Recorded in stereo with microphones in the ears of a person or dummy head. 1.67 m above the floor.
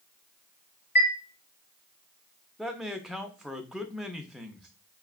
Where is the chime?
45° left (ahead or behind), 1.1 m.